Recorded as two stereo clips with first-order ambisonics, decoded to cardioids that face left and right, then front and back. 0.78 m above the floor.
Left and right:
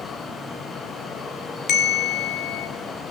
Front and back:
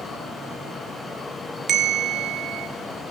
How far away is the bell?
About 0.9 m.